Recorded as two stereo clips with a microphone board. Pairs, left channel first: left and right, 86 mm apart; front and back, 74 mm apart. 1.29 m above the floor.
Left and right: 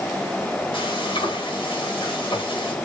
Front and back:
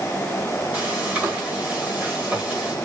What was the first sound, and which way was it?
Frying, 110° left.